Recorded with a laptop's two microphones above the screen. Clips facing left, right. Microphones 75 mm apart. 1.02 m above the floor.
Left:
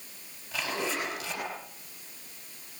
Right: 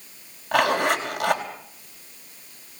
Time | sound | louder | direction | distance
0.5 | a zipper | right 12 dB | 75° right (ahead or behind) | 4.5 m